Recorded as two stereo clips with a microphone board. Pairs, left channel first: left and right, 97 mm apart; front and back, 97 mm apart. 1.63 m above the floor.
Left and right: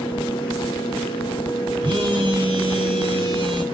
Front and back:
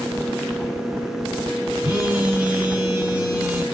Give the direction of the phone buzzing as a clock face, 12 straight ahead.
4 o'clock.